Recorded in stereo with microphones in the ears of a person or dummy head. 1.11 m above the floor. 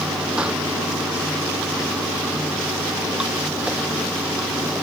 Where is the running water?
5° right (ahead or behind).